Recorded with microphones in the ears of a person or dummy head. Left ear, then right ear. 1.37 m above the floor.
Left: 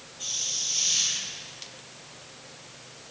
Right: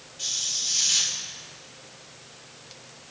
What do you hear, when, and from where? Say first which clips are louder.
0.2 s a hiss: right 2 dB; 45° right (ahead or behind), 2.0 m